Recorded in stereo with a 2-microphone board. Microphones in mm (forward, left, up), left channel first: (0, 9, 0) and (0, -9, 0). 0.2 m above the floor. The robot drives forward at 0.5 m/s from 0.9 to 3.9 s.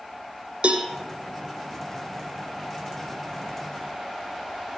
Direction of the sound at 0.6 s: 75° right (ahead or behind).